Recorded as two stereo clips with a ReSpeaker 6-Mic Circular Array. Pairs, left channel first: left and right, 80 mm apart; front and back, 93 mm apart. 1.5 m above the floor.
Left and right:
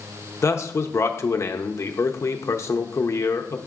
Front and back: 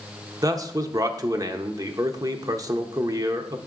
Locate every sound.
0.4 s a man speaking: 135° left, 0.6 m